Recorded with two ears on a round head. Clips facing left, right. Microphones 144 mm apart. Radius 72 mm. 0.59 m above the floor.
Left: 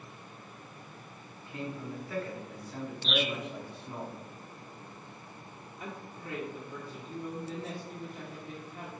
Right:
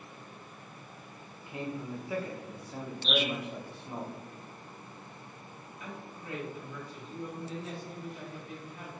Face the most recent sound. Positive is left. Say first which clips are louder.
# left 2 dB
turn(degrees=35)  # may be behind; listen again after turning